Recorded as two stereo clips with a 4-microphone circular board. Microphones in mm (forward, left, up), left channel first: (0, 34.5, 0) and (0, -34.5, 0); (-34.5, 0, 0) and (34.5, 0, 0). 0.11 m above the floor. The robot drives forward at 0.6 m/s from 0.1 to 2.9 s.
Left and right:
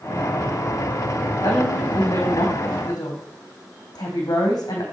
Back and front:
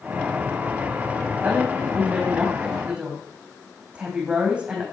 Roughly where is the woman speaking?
Ahead left.